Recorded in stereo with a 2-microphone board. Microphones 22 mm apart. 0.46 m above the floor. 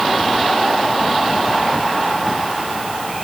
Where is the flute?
No flute in this recording.